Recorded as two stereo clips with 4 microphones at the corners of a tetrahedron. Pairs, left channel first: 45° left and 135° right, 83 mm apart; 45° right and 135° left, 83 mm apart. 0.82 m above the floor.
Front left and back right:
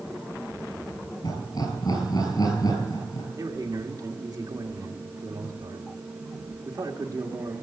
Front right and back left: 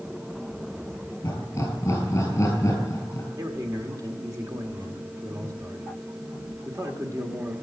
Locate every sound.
1.2 s laughter: 10° left, 6.5 m
3.4 s a man speaking: straight behind, 2.0 m